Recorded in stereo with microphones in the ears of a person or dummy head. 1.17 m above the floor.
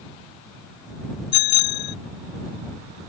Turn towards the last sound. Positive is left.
turn(degrees=55)  # may be behind; listen again after turning